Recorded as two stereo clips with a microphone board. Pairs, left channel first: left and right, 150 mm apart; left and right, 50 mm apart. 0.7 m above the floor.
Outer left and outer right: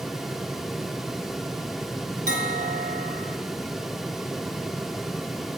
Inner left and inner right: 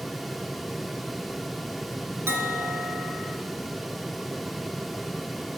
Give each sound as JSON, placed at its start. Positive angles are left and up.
{"t": 2.3, "sound": "a bell", "side_deg": -65, "distance_m": 2.0}